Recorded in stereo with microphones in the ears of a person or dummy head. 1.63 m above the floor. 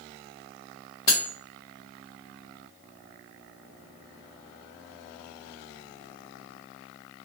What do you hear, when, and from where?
1.1 s cutlery clinking: 15° left (ahead or behind), 0.8 m